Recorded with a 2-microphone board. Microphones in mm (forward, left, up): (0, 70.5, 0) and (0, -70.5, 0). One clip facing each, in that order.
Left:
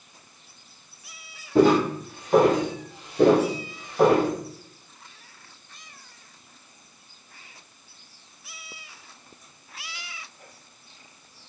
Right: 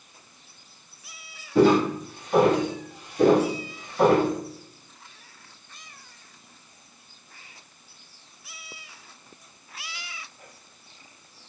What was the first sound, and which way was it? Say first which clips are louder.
Footsteps: even; 50° left (ahead or behind).